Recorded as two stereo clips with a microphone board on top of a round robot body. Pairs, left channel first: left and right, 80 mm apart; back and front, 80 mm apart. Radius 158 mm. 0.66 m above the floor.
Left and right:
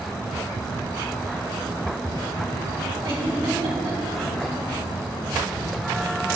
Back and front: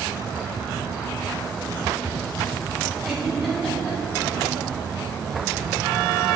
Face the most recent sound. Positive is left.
turn(degrees=-90)